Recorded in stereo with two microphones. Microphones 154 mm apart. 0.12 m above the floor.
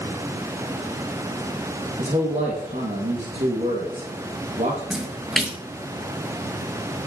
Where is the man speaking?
50° right (ahead or behind), 4 m.